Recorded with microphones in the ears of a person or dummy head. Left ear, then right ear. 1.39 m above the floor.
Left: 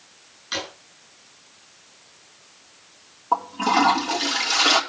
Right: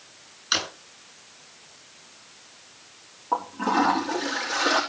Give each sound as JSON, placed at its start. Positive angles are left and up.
{"t": 0.5, "sound": "a drawer", "side_deg": -20, "distance_m": 8.5}
{"t": 3.3, "sound": "a toilet flushing", "side_deg": 85, "distance_m": 4.5}